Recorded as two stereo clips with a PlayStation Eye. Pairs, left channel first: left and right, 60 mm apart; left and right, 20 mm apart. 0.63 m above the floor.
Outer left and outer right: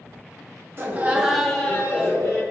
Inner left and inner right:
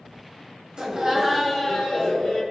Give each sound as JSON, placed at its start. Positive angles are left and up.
{"t": 0.8, "sound": "laughter", "side_deg": -40, "distance_m": 0.8}